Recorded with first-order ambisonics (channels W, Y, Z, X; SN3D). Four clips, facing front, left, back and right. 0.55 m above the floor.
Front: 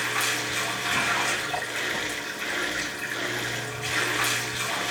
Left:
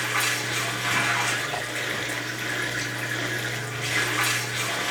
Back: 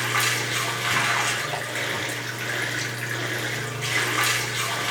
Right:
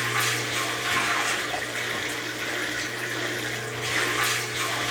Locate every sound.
0.0 s running water: 170° left, 2.5 m